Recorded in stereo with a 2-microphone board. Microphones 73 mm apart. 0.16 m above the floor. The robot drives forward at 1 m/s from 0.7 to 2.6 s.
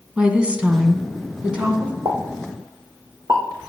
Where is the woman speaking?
15° right (ahead or behind), 1.4 m.